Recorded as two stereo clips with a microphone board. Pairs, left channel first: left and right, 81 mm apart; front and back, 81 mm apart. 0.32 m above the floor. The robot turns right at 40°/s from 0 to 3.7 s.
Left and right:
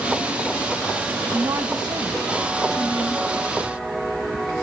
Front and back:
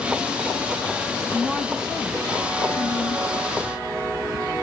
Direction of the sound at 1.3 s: 115° right.